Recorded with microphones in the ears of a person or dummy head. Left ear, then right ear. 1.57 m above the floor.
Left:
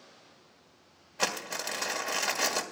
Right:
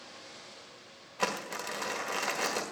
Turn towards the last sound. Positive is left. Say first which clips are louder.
# left 1 dB
turn(degrees=30)  # may be behind; listen again after turning